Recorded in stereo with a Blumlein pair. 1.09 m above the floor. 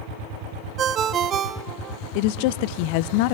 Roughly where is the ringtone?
Ahead right.